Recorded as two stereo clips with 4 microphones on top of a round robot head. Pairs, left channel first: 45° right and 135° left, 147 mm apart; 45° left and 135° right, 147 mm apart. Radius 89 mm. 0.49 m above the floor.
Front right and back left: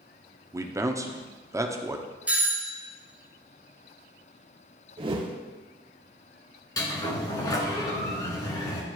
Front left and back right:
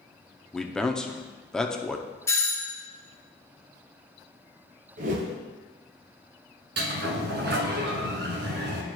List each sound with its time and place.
0.5 s a man speaking: 125° left, 0.7 m
2.3 s a doorbell: 75° left, 1.1 m
5.0 s a whoosh: 170° right, 0.7 m
6.8 s a sliding door: 115° right, 1.1 m